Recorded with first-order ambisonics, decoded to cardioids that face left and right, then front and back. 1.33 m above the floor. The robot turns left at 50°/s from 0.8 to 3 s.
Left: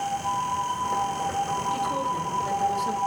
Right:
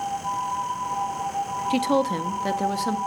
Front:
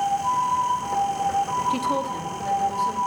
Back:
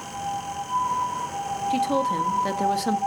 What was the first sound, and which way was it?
A woman speaking, 90° right.